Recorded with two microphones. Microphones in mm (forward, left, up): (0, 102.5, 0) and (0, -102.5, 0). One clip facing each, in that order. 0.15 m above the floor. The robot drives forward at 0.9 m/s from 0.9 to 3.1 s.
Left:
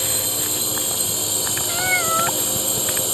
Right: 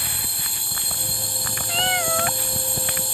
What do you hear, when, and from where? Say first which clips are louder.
0.0 s a drone: left 10 dB; 75° left (ahead or behind)
1.7 s a cat meowing: right 2 dB; 25° right (ahead or behind); by 2.4 s 30° right (ahead or behind)